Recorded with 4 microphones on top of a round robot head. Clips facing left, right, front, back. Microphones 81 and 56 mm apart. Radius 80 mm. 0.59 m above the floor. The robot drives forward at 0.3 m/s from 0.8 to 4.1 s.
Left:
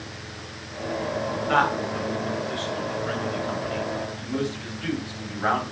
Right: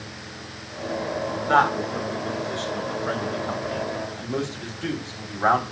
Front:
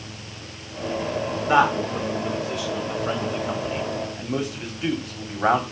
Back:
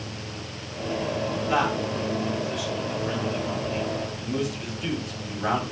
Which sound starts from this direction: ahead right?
A man speaking, at 1.5 s.